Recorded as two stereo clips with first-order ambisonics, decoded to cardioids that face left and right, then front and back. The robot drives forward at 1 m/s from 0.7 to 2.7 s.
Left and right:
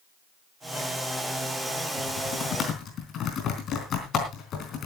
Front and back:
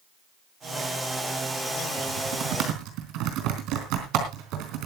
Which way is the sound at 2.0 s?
140° left.